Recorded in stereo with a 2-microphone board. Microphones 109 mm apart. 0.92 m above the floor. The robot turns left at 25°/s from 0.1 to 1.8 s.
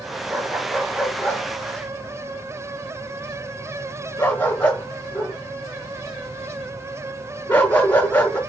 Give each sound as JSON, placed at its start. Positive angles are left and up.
{"t": 0.3, "sound": "a dog barking", "side_deg": -20, "distance_m": 5.0}